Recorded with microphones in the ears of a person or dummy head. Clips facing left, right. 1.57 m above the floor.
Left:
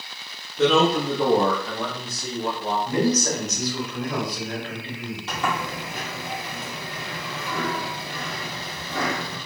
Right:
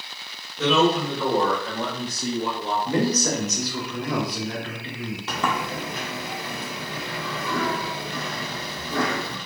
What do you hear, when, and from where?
0.6 s a man speaking: 55° left (ahead or behind), 1.2 m; by 2.8 s 75° right (ahead or behind), 1.0 m
2.9 s a man speaking: 75° right (ahead or behind), 1.3 m
5.3 s a sliding door: 55° right (ahead or behind), 0.8 m